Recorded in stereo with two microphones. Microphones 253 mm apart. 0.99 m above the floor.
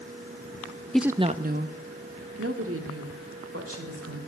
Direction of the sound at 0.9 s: 5° left (ahead or behind).